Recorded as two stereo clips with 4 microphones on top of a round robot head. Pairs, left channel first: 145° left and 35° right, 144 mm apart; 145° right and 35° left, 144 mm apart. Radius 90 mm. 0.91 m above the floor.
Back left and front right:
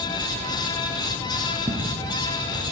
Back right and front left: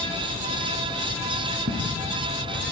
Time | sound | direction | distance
1.7 | footsteps | 35° left | 4.5 m